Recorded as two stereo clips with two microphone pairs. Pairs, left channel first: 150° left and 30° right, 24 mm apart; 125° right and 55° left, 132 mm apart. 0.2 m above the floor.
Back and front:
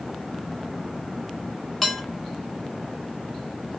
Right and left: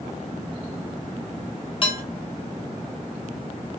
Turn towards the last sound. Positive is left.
turn(degrees=-145)